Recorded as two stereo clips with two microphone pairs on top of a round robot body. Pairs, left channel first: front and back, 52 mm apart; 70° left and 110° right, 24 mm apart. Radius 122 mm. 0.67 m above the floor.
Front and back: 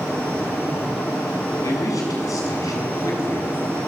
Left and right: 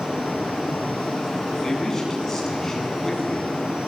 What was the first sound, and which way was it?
A man speaking, 5° right.